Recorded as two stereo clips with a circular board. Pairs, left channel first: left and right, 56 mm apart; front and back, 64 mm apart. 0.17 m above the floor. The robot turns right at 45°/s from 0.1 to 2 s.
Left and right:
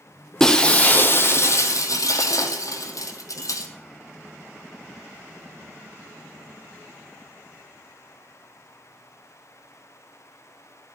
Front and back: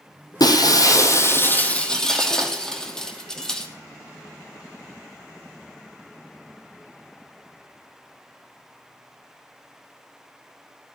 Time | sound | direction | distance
0.4 | breaking glass | 10° left | 1.6 m